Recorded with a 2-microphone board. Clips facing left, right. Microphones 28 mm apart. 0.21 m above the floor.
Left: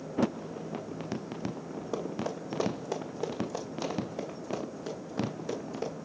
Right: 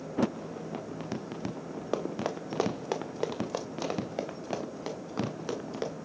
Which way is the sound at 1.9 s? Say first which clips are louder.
Right 2 dB; 80° right.